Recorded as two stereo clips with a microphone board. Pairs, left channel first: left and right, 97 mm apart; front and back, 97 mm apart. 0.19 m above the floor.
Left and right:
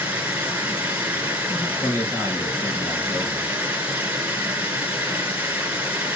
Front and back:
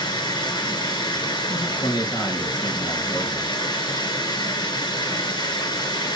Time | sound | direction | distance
0.0 | running water | 15° right | 2 m
1.5 | a man speaking | 35° left | 4 m